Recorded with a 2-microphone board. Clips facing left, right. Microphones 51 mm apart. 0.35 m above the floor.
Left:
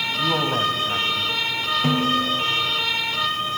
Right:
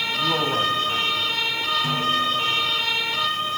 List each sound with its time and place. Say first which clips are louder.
0.2 s a man speaking: left 1 dB; centre (ahead or behind), 2 m; by 1.4 s 25° left (ahead or behind), 2.5 m
1.8 s a snare drum: left 4 dB; 45° left (ahead or behind), 6 m